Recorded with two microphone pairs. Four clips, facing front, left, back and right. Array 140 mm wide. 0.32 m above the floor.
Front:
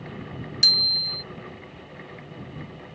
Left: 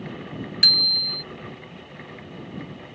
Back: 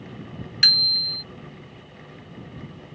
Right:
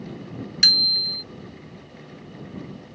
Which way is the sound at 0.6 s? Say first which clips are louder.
Even, back 2 dB; 150° right.